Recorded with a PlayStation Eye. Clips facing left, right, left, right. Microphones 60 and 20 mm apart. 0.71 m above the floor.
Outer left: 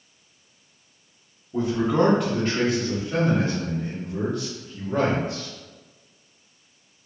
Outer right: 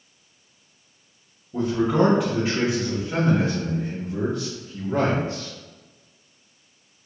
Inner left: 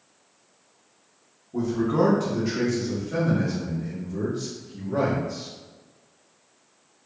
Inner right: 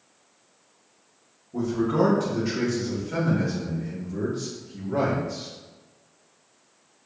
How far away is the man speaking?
About 1.0 m.